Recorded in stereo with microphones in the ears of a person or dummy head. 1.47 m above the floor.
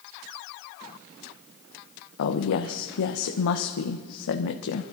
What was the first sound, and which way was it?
A woman speaking, 65° left (ahead or behind).